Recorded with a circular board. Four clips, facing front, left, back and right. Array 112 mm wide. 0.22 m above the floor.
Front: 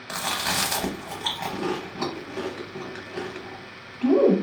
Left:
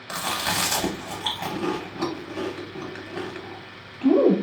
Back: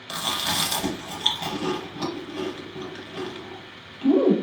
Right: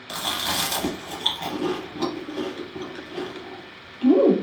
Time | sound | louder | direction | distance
0.1 | chewing | left 1 dB, front 1 dB | 35° left | 0.9 m